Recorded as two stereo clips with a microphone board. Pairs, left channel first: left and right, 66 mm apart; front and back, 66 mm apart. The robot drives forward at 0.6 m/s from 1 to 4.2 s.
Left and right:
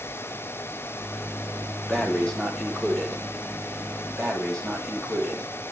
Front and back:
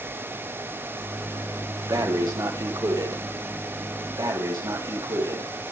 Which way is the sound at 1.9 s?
170° left.